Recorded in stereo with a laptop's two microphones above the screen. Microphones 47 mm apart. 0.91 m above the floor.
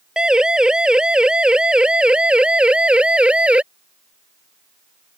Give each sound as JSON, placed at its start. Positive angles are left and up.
{"t": 0.2, "sound": "a siren", "side_deg": -15}